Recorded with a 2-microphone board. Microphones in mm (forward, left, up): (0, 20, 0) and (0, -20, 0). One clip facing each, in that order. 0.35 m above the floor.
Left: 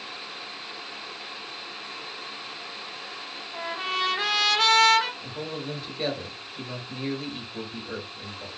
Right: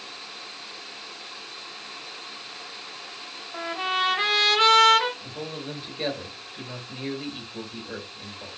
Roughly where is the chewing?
No chewing in this recording.